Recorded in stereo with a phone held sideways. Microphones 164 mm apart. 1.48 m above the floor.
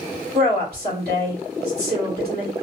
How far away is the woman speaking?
About 2.0 m.